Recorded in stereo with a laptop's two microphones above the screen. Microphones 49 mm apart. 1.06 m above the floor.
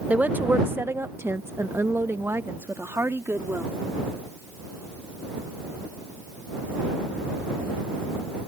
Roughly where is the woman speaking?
Right.